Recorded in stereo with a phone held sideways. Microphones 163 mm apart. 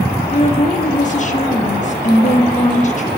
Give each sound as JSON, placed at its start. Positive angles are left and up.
{"t": 0.3, "sound": "a woman speaking", "side_deg": 45, "distance_m": 1.1}